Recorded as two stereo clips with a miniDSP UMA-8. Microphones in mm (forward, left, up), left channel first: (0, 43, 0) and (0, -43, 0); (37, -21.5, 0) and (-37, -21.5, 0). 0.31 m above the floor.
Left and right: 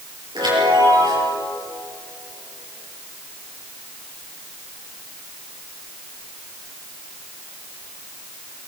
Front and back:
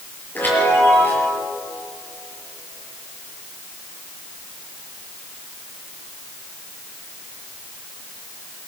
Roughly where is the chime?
Ahead right.